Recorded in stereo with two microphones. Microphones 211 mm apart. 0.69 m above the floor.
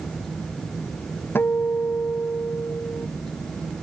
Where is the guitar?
10° left (ahead or behind).